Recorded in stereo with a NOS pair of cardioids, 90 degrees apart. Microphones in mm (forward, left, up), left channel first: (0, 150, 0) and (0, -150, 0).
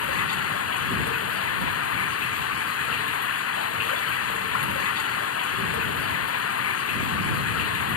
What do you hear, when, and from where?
0.0 s running water: 50° left